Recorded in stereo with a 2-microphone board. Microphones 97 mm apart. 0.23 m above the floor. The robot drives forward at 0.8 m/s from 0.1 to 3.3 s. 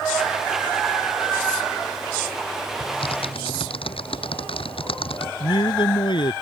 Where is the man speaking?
65° left (ahead or behind).